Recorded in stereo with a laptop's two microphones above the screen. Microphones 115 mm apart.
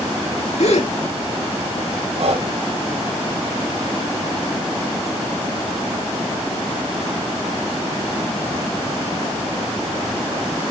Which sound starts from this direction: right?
Breathing, at 2.2 s.